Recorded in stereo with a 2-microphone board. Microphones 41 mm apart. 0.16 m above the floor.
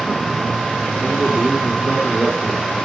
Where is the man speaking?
Centre (ahead or behind), 6 m; by 2.8 s 20° right (ahead or behind), 4.5 m.